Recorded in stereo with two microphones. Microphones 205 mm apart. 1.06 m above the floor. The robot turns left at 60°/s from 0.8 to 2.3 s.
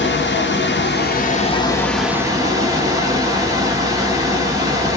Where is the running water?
75° left, 0.9 m; by 5.0 s 15° right, 0.9 m.